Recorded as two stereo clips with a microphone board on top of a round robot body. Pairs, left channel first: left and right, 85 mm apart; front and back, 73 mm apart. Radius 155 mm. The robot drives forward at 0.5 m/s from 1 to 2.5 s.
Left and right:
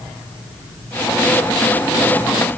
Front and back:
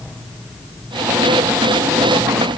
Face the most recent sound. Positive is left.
No sound to turn to.